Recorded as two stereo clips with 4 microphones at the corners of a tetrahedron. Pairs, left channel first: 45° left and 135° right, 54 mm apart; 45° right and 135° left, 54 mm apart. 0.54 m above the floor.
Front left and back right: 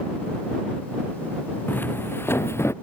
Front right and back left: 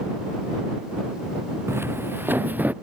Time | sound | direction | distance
1.7 | footsteps | 95° left | ?